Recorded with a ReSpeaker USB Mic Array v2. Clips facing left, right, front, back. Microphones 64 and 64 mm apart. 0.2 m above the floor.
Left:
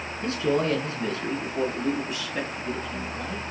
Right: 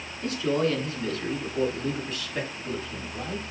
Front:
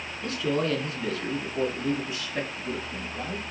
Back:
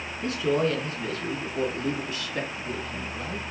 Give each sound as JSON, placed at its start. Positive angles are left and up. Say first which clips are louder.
{"t": 0.2, "sound": "a man speaking", "louder": "left 1 dB, back 2 dB", "azimuth_deg": 105, "distance_m": 1.9}